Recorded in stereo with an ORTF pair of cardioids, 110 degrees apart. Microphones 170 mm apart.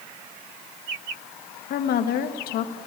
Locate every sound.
1.7 s a woman speaking: 65° left, 1.4 m